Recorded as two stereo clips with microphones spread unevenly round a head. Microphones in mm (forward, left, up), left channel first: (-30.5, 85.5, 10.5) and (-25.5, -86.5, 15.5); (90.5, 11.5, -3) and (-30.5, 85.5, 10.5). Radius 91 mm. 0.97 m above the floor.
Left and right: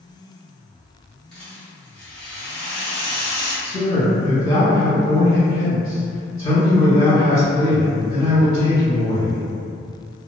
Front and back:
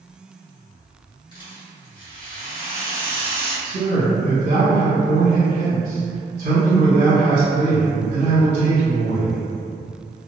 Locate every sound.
1.3 s a rattle: 10° left, 1.0 m
3.6 s a man speaking: 145° left, 1.6 m